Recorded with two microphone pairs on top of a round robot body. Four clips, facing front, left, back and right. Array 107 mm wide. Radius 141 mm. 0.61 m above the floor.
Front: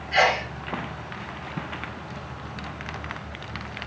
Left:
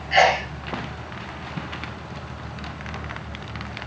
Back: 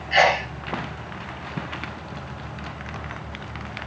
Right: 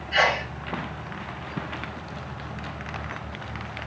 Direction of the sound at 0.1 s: 120° left.